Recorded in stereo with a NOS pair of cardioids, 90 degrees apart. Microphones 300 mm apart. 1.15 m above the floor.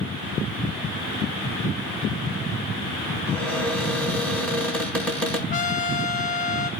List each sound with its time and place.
3.3 s a cupboard door: 5° left, 5.5 m
5.5 s a trumpet: 25° left, 7.5 m